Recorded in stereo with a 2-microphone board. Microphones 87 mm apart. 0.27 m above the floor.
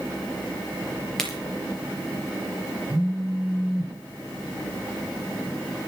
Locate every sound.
1.2 s a crack: 5° left (ahead or behind), 5 m
2.9 s a phone buzzing: 10° right (ahead or behind), 4.5 m